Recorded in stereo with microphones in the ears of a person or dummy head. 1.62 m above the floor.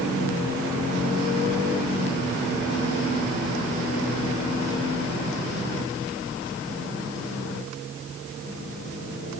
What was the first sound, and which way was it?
Only background noise.